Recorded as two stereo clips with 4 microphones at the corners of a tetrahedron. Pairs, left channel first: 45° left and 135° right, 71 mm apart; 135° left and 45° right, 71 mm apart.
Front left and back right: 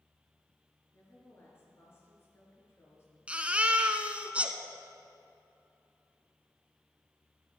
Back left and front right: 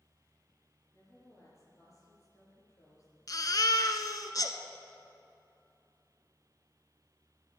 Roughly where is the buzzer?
I don't hear a buzzer.